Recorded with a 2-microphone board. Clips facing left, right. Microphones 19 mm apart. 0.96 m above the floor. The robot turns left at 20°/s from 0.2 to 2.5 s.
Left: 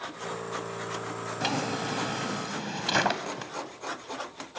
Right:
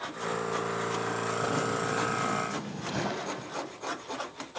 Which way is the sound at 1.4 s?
60° left (ahead or behind).